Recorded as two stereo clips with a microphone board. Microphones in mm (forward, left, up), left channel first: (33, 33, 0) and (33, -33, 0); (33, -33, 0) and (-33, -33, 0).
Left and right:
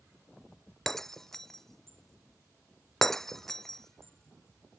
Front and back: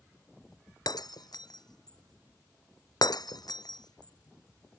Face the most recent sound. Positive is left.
turn(degrees=5)